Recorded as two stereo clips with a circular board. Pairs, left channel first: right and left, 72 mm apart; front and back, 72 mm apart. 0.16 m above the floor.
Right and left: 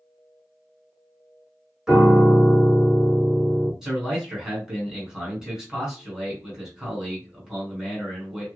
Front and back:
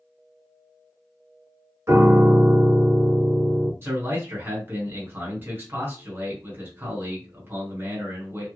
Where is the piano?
170° left, 1.3 m.